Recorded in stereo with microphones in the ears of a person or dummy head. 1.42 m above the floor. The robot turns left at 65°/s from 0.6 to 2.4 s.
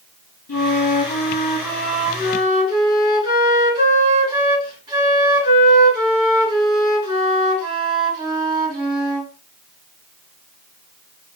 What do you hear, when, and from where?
0.5 s a flute: 95° left, 2.5 m; by 9.3 s 25° right, 2.5 m